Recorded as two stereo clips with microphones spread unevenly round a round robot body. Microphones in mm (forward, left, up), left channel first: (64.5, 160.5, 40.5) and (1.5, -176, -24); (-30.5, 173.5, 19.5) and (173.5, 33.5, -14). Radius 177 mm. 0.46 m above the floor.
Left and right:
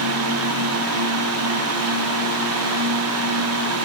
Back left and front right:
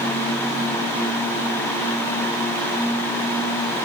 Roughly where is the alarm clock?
No alarm clock in this recording.